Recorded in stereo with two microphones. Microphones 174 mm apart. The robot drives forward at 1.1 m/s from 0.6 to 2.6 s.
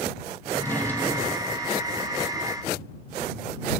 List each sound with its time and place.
0.5 s a drawer: 15° left (ahead or behind), 1.7 m; by 1.7 s 10° left (ahead or behind), 3 m